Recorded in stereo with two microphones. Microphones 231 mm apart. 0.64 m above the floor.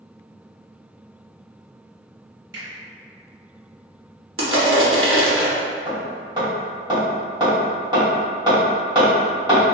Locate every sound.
2.5 s a finger snap: 10° right (ahead or behind), 1.6 m
4.4 s crushing: 60° right (ahead or behind), 0.7 m
5.9 s hammering: 15° right (ahead or behind), 1.3 m